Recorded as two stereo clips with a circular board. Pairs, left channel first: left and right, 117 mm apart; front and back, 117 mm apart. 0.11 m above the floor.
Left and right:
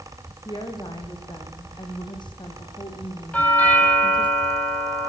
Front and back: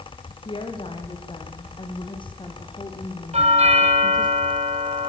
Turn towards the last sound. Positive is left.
turn(degrees=165)